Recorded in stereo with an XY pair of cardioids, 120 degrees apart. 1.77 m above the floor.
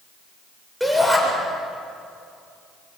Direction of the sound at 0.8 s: 5° right.